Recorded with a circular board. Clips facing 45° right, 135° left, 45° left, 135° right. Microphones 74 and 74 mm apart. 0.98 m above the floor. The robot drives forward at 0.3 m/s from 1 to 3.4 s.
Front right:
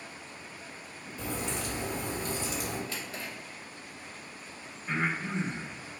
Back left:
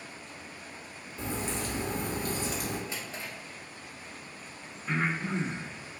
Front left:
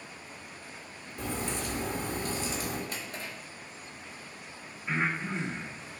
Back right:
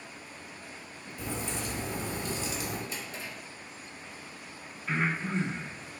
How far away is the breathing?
About 1.0 m.